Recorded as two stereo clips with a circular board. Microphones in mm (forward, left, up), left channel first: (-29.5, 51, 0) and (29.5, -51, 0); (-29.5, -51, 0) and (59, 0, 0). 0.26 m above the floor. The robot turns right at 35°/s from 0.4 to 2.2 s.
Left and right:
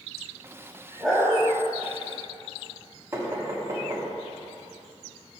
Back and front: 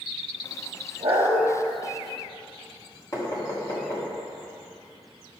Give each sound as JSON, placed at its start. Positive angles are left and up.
{"t": 1.0, "sound": "a dog barking", "azimuth_deg": 30, "distance_m": 2.0}
{"t": 3.1, "sound": "knocking", "azimuth_deg": -115, "distance_m": 1.6}